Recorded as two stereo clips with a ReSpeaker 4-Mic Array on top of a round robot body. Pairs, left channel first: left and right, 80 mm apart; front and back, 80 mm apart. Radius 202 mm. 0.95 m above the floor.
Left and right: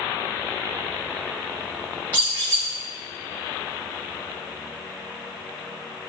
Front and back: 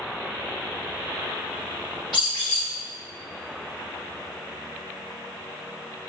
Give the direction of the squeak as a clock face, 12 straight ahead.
1 o'clock.